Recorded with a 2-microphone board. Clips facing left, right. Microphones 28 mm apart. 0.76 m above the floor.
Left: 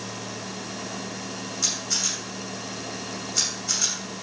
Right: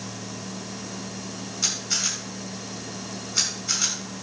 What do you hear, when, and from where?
1.6 s a camera shutter: 20° right (ahead or behind), 6 m